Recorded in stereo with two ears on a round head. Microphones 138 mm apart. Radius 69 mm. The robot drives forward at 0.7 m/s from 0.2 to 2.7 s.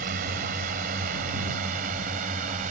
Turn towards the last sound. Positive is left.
turn(degrees=-55)  # may be behind; listen again after turning